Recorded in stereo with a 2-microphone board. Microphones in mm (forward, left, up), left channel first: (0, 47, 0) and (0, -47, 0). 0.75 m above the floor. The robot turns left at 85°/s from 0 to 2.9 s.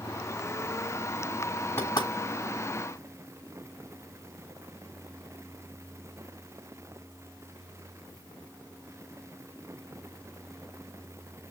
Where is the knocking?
25° left (ahead or behind), 3.5 m; by 2.1 s 55° left (ahead or behind), 3.5 m.